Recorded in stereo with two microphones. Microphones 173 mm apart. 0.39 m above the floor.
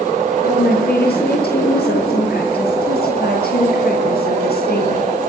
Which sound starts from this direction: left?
A woman speaking, at 0.4 s.